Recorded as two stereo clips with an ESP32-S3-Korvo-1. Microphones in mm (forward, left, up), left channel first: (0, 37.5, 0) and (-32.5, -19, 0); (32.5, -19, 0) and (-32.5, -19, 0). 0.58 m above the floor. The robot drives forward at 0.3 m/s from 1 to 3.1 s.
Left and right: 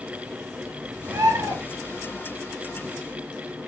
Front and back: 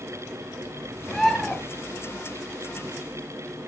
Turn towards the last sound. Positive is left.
turn(degrees=-125)